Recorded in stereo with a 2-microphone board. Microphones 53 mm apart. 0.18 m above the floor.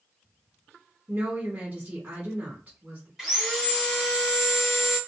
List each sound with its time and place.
1.1 s a woman speaking: 35° right (ahead or behind), 1.7 m
3.2 s sawing: 10° right (ahead or behind), 1.8 m